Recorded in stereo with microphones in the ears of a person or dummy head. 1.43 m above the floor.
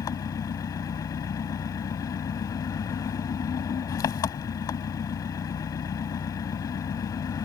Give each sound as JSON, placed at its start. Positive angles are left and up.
{"t": 0.0, "sound": "an engine running", "side_deg": 25}